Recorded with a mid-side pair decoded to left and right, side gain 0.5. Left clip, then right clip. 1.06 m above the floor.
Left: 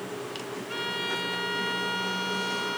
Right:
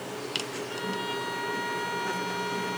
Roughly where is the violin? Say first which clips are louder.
Left 4 dB; ahead left.